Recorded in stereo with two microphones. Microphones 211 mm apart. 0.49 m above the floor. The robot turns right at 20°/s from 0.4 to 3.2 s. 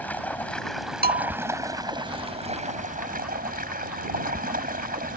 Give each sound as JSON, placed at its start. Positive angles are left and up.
{"t": 0.0, "sound": "running water", "azimuth_deg": 170}
{"t": 1.0, "sound": "a bell", "side_deg": -45}